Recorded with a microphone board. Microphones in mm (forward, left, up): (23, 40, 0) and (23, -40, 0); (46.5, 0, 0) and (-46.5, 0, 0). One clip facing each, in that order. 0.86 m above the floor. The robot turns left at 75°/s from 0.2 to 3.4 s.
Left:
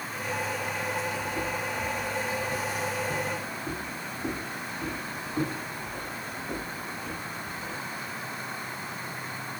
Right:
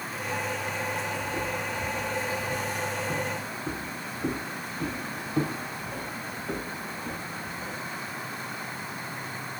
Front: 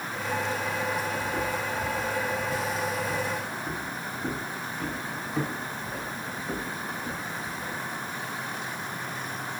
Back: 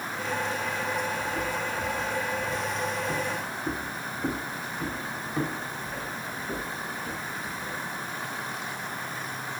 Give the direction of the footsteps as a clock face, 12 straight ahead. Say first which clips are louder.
Even, front 1 dB; 1 o'clock.